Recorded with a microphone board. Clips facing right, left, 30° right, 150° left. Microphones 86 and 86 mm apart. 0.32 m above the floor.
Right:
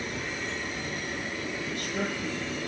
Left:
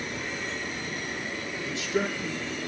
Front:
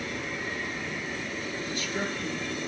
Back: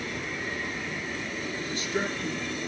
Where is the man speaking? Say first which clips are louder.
Left 6 dB, back 3 dB; 95° left, 5.5 m.